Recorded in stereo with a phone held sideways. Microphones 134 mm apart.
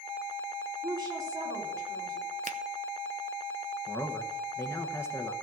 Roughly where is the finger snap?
Right.